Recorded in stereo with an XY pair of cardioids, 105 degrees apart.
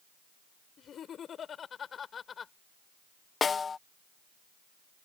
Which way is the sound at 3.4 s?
35° left.